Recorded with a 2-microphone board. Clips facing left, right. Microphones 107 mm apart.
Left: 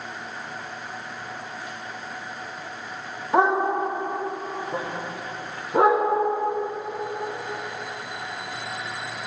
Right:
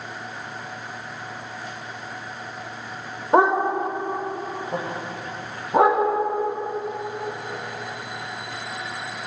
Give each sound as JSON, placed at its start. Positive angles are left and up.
{"t": 3.3, "sound": "a dog barking", "side_deg": -50, "distance_m": 1.5}